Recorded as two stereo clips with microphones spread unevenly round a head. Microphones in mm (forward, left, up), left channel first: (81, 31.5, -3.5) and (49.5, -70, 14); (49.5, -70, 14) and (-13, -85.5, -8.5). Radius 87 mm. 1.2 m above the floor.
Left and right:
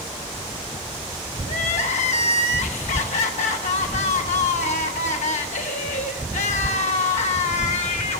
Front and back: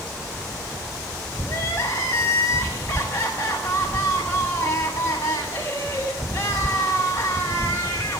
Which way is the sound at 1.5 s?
75° left.